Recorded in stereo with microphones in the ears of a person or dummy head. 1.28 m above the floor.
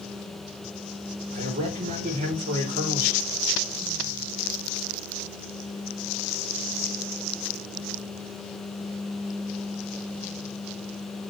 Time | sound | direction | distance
1.3 | a man speaking | 40° right (ahead or behind) | 3 m